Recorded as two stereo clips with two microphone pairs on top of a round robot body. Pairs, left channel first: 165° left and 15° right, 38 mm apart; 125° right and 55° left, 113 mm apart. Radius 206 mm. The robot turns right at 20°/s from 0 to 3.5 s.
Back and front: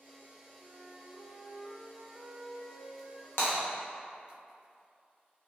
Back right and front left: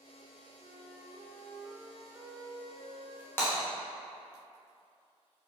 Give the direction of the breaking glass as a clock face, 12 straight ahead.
7 o'clock.